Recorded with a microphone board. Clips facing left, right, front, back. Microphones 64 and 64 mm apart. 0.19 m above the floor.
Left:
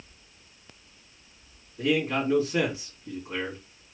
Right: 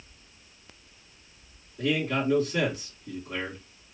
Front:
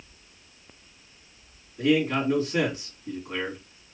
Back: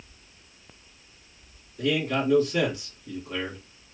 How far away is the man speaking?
About 2 m.